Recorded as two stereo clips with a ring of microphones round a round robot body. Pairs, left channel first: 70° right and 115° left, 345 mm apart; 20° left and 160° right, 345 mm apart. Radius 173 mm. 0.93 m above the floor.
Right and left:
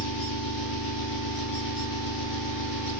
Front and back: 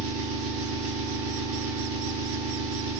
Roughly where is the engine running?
Right.